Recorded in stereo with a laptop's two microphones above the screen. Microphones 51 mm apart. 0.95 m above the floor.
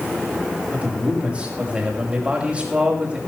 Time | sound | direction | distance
0.7 | a man speaking | 25° right (ahead or behind) | 5.5 m